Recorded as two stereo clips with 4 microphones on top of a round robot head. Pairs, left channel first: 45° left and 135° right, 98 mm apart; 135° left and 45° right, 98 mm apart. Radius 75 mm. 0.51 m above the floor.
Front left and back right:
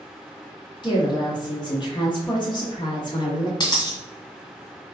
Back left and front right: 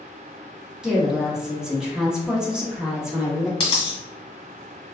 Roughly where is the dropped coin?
Left.